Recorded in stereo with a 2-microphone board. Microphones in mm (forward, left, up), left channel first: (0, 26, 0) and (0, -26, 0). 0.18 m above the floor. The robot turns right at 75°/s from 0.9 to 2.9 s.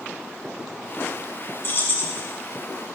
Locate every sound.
1.6 s keys jangling: 75° left, 0.9 m; by 2.2 s 120° left, 0.9 m